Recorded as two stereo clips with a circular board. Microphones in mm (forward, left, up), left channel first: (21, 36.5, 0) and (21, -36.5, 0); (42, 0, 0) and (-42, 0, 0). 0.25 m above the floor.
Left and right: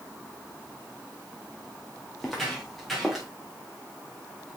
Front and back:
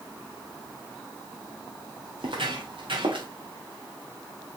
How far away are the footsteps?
About 3.5 m.